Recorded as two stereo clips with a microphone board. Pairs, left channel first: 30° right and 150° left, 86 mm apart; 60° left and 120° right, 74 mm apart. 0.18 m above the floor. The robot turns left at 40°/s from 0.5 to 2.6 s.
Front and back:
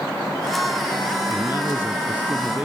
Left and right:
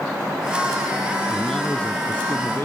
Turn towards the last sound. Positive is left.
turn(degrees=90)